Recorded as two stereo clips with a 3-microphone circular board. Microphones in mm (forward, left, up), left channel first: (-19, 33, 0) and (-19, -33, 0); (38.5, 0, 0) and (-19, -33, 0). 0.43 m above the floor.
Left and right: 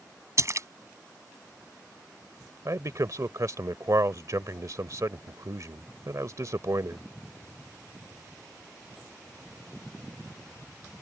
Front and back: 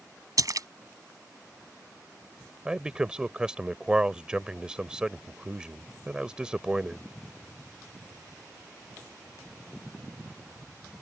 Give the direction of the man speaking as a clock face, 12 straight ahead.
3 o'clock.